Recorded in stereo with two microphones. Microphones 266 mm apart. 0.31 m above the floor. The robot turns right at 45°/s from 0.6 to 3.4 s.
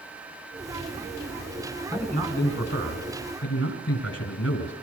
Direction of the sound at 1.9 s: 10° right.